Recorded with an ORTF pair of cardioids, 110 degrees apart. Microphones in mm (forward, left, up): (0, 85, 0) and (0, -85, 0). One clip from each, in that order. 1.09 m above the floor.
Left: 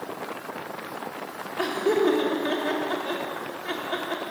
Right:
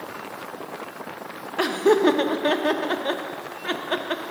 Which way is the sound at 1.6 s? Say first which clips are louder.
Right 4 dB; 55° right.